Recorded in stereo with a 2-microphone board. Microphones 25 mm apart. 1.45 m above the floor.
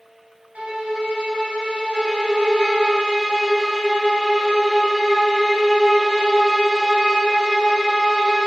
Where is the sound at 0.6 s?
65° right (ahead or behind), 0.5 m.